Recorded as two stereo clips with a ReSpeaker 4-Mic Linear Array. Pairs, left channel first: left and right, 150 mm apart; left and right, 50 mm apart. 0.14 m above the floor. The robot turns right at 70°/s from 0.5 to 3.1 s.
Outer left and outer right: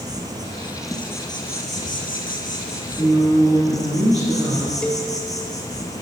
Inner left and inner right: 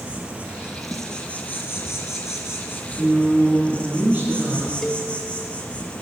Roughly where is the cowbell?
Centre.